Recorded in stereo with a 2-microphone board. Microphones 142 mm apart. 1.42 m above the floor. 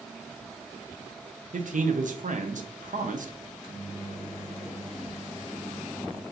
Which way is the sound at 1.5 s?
65° right (ahead or behind).